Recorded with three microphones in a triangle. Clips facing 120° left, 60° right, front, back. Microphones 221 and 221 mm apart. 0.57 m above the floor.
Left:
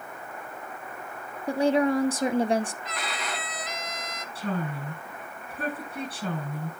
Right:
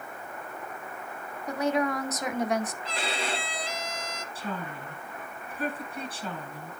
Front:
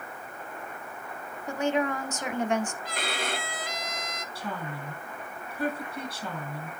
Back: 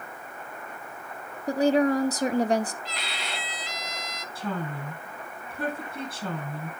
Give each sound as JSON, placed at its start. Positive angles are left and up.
{"t": 1.5, "sound": "a woman speaking", "azimuth_deg": 160, "distance_m": 0.8}
{"t": 2.8, "sound": "a violin", "azimuth_deg": -5, "distance_m": 0.7}
{"t": 4.3, "sound": "a woman speaking", "azimuth_deg": 145, "distance_m": 9.0}